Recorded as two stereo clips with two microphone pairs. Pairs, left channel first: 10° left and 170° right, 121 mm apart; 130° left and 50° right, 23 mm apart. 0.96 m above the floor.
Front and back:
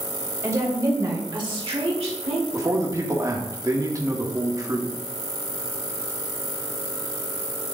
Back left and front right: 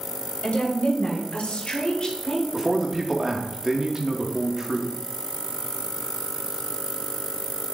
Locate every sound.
0.4 s a woman speaking: 125° left, 3 m; by 2.4 s 160° right, 1.4 m
2.5 s a man speaking: 110° right, 1.3 m